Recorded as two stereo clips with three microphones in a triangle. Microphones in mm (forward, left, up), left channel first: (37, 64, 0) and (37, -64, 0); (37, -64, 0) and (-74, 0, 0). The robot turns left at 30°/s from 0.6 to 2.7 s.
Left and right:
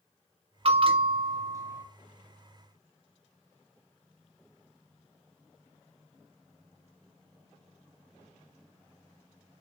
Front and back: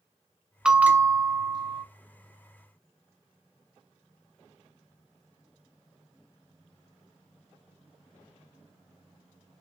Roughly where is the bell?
Behind right.